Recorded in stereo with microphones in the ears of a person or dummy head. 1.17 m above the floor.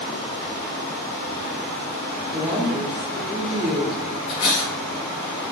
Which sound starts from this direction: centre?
A woman speaking, at 2.3 s.